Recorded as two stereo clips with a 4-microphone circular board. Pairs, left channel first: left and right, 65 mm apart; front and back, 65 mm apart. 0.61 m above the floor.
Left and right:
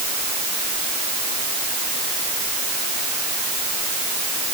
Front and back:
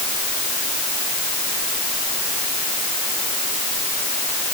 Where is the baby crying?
No baby crying in this recording.